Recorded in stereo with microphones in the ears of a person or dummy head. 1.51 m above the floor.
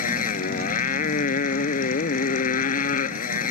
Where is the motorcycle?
35° left (ahead or behind).